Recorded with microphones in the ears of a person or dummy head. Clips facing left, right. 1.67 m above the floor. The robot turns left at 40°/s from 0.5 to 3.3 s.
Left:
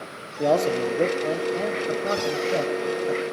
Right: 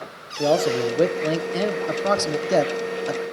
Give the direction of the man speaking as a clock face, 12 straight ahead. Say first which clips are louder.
Right 1 dB; 12 o'clock.